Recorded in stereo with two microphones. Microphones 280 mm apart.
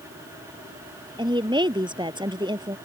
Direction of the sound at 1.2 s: 15° right (ahead or behind).